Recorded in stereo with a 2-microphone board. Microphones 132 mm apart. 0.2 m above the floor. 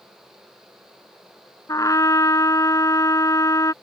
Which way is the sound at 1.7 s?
25° left (ahead or behind).